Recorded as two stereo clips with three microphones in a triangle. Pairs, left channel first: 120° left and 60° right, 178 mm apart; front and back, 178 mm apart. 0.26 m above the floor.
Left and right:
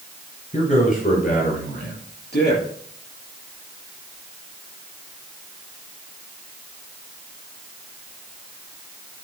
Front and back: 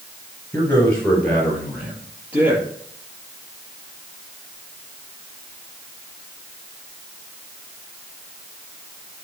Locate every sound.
0.5 s a man speaking: 75° left, 4.5 m; by 2.6 s 100° left, 6 m